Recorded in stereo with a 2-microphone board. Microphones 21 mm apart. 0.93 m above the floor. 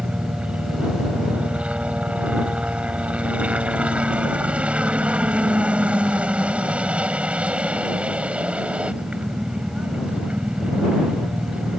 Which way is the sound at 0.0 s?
75° right (ahead or behind).